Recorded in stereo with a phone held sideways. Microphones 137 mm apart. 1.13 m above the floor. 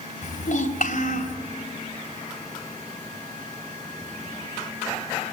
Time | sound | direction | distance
0.2 | a child speaking | 70° left (ahead or behind) | 3.5 m